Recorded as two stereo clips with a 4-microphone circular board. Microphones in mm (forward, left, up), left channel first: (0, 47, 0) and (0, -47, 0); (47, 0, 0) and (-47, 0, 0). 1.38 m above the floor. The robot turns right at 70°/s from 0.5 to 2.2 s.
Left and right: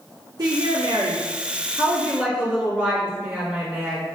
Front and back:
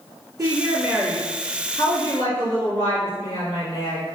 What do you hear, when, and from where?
0.4 s a woman speaking: 135° right, 1.9 m; by 4.0 s 15° right, 1.9 m